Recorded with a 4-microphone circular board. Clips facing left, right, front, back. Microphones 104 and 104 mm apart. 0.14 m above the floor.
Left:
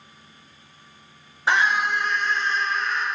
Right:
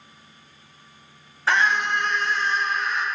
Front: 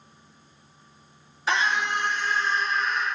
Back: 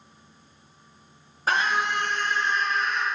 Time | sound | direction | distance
1.5 | a scream | 155° left | 2.5 m